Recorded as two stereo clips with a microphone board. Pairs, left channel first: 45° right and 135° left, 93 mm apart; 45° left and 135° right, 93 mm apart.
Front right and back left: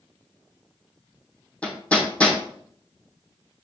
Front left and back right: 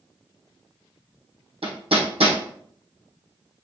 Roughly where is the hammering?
Behind right.